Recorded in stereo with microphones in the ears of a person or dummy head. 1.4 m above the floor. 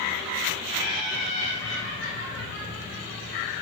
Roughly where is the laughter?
Left.